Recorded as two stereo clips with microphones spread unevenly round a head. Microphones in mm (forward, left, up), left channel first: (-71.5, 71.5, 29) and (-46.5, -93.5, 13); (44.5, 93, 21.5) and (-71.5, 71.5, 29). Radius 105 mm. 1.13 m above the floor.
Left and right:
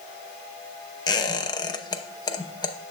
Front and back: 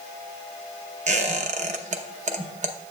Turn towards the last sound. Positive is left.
turn(degrees=165)